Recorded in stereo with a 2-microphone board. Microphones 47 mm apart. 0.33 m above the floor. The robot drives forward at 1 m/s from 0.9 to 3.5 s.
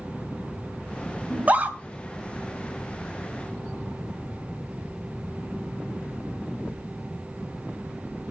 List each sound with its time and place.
1.3 s a scream: 30° right (ahead or behind), 1.8 m; by 1.8 s 35° right (ahead or behind), 1.5 m